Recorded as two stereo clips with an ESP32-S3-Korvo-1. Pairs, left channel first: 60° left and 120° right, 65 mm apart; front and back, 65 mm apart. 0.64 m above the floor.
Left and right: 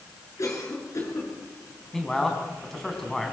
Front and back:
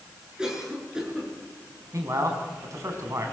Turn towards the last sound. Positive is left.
turn(degrees=145)